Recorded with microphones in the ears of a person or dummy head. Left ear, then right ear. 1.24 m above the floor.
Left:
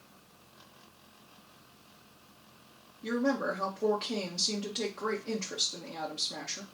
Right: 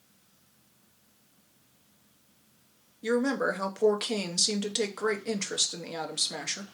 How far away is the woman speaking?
About 0.6 m.